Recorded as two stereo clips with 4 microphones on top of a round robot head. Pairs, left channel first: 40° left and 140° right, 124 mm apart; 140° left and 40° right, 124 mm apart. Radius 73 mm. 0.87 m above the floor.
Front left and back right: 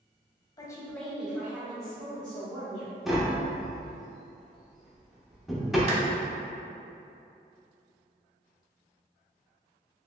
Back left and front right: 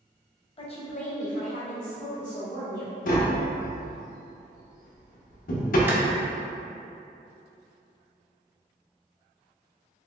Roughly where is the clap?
Right.